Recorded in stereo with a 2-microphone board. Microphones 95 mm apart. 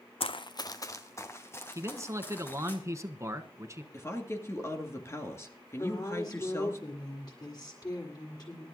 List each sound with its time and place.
0.2 s running footsteps: 75° left (ahead or behind), 0.5 m; by 2.8 s 20° left (ahead or behind), 4 m
1.8 s a man speaking: 30° right (ahead or behind), 1.2 m
3.9 s a woman speaking: 30° left (ahead or behind), 2 m
5.8 s a woman speaking: 40° left (ahead or behind), 7.5 m